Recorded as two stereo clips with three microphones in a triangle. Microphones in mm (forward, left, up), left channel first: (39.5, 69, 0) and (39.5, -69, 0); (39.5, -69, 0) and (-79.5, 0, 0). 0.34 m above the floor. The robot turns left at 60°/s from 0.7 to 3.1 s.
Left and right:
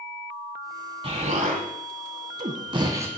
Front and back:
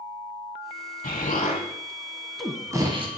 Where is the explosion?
40° right, 1.1 m; by 3.1 s 160° right, 1.1 m.